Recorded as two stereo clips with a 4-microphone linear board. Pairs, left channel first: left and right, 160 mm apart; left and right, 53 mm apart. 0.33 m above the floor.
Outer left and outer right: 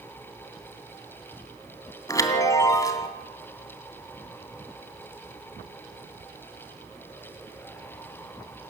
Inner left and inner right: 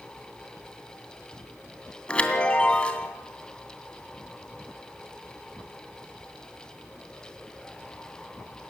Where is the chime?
20° left (ahead or behind), 2.5 m.